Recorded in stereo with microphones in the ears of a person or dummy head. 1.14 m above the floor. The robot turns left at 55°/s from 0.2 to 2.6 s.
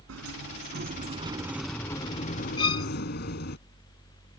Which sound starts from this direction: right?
A sliding door, at 0.1 s.